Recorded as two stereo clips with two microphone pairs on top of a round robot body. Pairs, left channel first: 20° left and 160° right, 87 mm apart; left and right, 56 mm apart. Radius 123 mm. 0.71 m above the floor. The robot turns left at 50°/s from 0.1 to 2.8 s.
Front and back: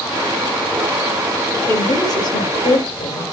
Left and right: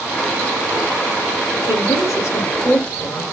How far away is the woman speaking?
About 4.5 m.